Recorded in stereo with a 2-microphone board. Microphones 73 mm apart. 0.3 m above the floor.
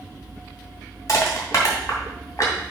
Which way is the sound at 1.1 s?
50° left (ahead or behind).